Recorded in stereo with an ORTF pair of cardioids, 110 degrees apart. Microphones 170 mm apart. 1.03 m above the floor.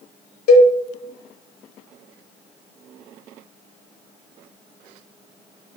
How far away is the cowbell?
About 0.7 m.